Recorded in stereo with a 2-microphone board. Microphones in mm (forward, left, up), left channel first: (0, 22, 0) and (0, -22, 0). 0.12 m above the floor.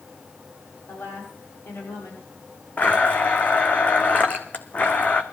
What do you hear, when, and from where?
0.9 s a woman speaking: 80° left, 7.5 m
2.8 s a blender: 35° left (ahead or behind), 1.2 m